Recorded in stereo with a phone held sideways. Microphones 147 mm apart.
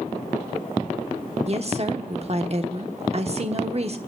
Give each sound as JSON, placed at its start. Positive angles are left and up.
{"t": 1.5, "sound": "a woman speaking", "side_deg": -45, "distance_m": 1.0}